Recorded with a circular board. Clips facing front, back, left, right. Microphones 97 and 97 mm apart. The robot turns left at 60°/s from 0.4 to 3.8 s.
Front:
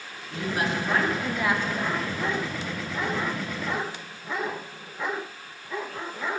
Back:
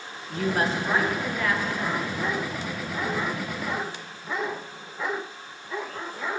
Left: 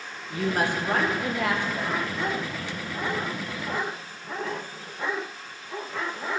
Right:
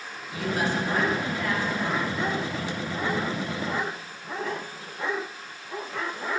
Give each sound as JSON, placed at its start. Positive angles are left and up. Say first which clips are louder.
{"t": 0.3, "sound": "a woman speaking", "louder": "back 3 dB, left 1 dB", "azimuth_deg": 140, "distance_m": 1.0}